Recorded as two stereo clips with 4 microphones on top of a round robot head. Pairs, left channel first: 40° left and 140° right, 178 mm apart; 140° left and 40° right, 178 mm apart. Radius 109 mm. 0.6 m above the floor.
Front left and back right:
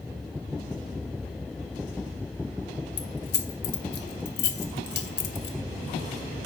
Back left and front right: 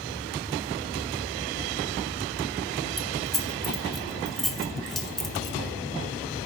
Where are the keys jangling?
50° left, 1.1 m.